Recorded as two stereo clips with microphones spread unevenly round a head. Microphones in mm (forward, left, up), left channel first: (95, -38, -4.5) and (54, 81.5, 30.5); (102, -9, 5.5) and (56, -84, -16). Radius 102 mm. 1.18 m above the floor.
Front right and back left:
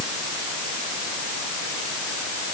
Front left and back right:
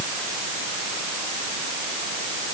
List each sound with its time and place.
Only background noise.